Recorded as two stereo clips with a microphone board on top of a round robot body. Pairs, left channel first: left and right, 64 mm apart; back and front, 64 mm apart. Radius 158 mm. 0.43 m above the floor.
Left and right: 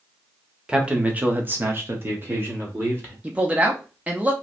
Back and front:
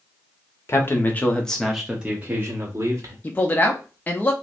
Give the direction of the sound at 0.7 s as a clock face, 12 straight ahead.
5 o'clock.